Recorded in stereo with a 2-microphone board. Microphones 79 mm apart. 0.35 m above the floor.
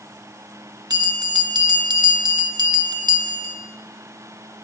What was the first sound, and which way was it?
A bell, 65° right (ahead or behind).